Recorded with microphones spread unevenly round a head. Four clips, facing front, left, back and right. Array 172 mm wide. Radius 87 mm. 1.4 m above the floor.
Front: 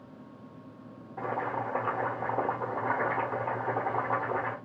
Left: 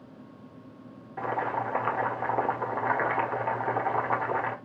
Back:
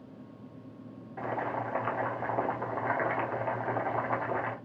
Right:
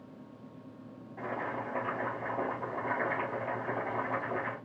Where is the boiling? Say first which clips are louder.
Left 7 dB, front 1 dB; 65° left, 1.7 m.